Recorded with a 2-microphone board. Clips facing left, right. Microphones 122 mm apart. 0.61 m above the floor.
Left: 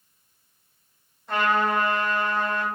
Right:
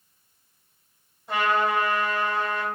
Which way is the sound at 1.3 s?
10° right (ahead or behind).